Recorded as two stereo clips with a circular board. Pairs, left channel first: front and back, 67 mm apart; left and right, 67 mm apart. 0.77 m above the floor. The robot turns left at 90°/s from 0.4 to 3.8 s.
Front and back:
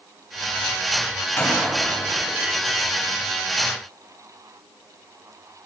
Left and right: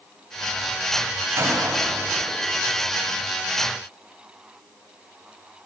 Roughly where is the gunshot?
Ahead right.